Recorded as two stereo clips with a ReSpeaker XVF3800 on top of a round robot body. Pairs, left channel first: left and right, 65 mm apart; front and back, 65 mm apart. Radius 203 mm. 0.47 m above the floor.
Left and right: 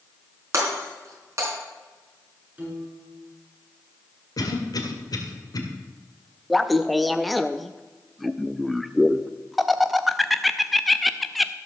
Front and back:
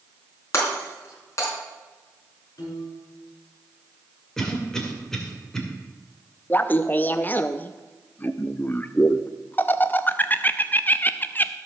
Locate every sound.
0.5 s breaking glass: 45° right, 4 m
2.6 s a piano: 25° right, 5.5 m
4.4 s a cough: 85° left, 2.5 m
6.5 s laughter: straight ahead, 0.8 m